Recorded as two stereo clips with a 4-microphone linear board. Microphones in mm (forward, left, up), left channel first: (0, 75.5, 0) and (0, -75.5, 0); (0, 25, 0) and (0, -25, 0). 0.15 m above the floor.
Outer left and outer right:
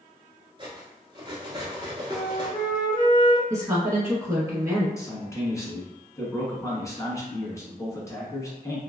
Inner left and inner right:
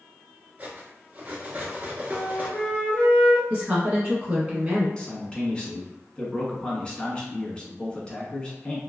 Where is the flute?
30° left (ahead or behind), 0.9 m.